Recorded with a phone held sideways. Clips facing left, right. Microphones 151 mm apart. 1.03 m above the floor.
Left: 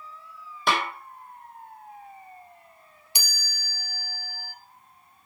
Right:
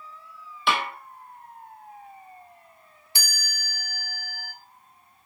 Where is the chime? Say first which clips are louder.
Right 2 dB; 15° left (ahead or behind), 1.2 m.